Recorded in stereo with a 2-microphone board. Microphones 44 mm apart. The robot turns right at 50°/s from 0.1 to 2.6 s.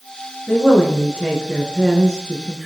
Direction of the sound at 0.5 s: 20° left (ahead or behind).